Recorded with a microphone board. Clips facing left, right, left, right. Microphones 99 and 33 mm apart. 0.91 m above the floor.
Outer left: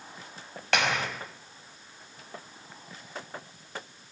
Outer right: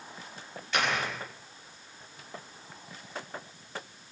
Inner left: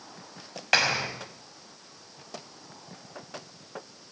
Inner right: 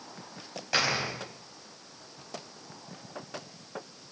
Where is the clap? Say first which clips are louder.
Outer left 2 dB, inner left 4 dB; 75° left (ahead or behind), 5 m.